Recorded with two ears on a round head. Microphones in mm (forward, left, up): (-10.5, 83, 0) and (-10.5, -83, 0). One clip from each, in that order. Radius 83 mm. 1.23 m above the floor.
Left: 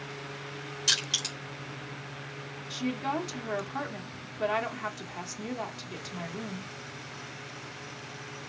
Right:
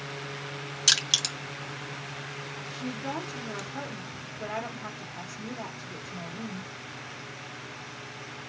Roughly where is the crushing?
Right.